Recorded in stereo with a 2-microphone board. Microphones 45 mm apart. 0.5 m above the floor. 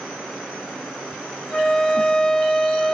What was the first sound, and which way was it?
A flute, 15° left (ahead or behind).